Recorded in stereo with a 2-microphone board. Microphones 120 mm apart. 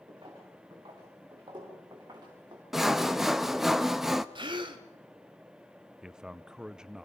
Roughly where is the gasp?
Right.